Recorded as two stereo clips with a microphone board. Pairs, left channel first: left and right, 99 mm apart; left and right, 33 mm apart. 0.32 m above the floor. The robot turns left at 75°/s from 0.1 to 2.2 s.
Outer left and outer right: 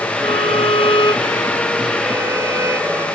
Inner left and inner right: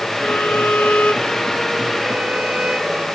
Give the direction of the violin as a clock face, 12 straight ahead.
8 o'clock.